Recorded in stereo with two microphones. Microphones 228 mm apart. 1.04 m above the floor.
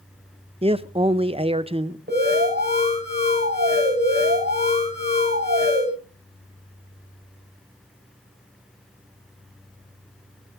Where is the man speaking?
25° right (ahead or behind), 0.8 m.